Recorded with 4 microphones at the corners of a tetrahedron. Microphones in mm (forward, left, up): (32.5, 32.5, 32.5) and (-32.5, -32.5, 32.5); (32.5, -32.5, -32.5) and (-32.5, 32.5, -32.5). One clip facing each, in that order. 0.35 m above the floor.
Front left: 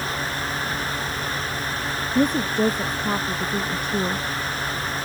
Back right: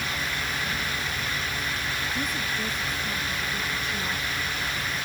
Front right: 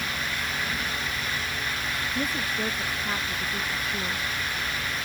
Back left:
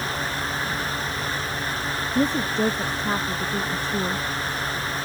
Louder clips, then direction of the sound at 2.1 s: Front left 10 dB, back left 10 dB; 75° left.